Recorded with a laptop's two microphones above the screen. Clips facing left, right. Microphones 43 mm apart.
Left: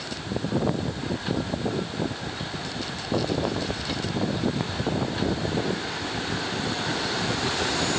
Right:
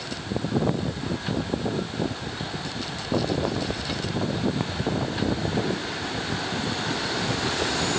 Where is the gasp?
No gasp in this recording.